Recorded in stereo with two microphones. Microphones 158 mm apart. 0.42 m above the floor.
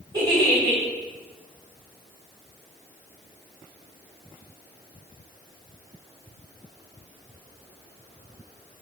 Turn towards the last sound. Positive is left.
turn(degrees=-25)  # may be behind; listen again after turning